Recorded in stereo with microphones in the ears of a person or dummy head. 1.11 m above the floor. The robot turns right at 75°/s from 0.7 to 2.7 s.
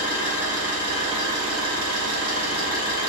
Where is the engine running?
170° right, 1.6 m; by 3.1 s 20° right, 1.6 m.